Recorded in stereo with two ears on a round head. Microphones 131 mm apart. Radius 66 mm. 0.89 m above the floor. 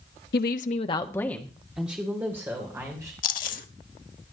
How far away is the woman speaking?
About 1.0 m.